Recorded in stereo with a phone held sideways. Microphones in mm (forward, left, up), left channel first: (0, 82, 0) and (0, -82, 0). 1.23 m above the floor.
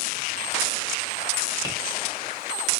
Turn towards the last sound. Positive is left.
turn(degrees=-20)  # may be behind; listen again after turning